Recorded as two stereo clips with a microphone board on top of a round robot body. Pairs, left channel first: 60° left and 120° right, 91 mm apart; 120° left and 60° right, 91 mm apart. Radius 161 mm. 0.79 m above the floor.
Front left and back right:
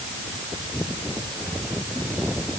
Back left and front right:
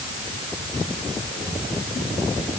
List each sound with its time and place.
Only background noise.